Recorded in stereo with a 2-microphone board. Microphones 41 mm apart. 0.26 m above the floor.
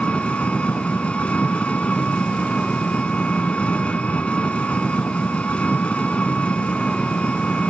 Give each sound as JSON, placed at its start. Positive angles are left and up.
{"t": 0.0, "sound": "an engine running", "side_deg": 30, "distance_m": 1.1}